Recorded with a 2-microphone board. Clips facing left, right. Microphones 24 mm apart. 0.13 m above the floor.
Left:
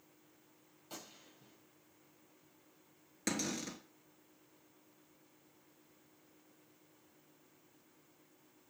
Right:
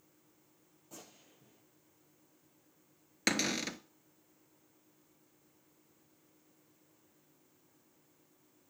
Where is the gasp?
No gasp in this recording.